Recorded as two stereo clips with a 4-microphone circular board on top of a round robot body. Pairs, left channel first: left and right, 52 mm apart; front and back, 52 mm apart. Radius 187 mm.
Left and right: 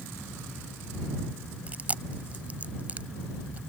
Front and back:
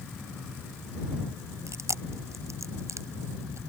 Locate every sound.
1.7 s chewing: 155° right